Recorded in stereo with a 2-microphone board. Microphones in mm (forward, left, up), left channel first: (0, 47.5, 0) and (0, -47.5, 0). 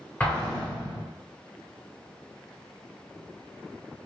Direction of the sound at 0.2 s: 20° left (ahead or behind).